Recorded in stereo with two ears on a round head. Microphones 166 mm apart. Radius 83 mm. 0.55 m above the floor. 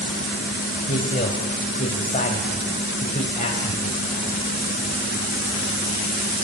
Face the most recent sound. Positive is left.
turn(degrees=40)  # may be behind; listen again after turning